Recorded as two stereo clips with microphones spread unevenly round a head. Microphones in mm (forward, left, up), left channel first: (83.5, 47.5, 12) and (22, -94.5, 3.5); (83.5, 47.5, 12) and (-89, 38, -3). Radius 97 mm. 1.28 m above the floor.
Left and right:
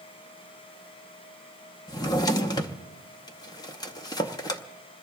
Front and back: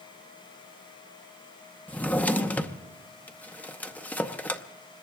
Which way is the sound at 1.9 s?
65° left.